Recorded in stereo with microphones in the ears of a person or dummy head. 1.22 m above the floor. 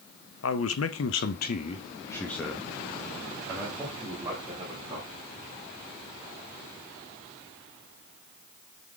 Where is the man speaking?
80° left, 1.2 m; by 5.1 s 20° right (ahead or behind), 3.5 m.